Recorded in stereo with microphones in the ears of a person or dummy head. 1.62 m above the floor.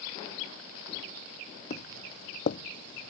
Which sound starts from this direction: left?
Footsteps, at 1.7 s.